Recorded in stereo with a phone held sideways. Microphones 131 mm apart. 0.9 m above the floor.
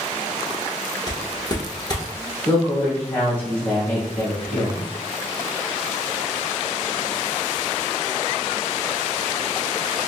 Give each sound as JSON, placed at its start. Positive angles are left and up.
{"t": 1.1, "sound": "footsteps", "side_deg": 30, "distance_m": 0.9}
{"t": 2.5, "sound": "a woman speaking", "side_deg": 10, "distance_m": 1.5}